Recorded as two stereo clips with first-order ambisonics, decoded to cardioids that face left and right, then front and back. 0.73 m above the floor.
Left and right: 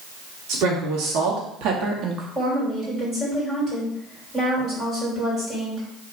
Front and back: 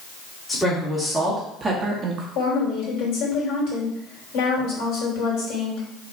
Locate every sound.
0.5 s a woman speaking: 80° right, 1.6 m; by 2.2 s 145° right, 0.8 m
2.4 s a woman speaking: 15° right, 2.5 m